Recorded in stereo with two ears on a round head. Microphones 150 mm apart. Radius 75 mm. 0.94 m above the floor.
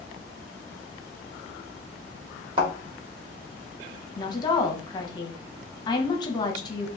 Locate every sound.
2.6 s a thud: 30° right (ahead or behind), 1.3 m
4.2 s a woman speaking: 25° left (ahead or behind), 0.9 m